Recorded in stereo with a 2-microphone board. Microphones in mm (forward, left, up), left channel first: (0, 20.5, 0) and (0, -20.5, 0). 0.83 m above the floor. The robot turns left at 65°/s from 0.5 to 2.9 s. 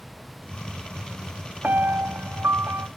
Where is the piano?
45° right, 0.6 m; by 2.9 s 125° right, 0.6 m.